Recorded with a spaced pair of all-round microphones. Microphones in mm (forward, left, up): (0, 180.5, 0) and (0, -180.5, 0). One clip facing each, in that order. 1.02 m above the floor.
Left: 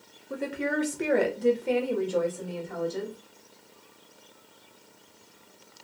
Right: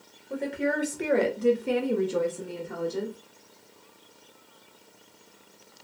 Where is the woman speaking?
20° left (ahead or behind), 0.8 m; by 3.1 s 40° right (ahead or behind), 1.0 m.